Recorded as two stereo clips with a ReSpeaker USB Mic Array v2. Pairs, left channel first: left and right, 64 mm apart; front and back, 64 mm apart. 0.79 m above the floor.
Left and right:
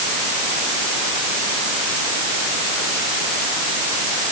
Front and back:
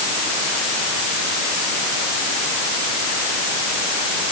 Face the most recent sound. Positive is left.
No sound to turn to.